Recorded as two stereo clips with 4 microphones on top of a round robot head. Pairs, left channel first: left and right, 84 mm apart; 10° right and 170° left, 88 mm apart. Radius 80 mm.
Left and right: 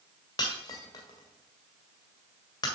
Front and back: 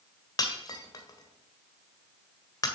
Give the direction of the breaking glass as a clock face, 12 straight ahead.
11 o'clock.